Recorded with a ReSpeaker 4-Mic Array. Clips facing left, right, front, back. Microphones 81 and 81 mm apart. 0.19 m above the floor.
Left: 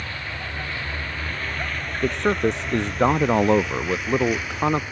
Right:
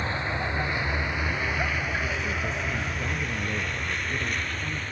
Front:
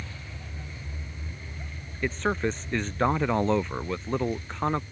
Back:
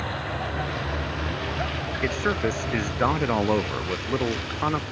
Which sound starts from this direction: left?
A man speaking, at 2.0 s.